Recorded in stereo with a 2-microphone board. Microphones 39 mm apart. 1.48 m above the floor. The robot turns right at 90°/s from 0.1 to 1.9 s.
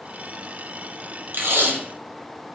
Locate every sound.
1.3 s tape being pulled: 110° right, 0.9 m; by 1.8 s 70° right, 0.9 m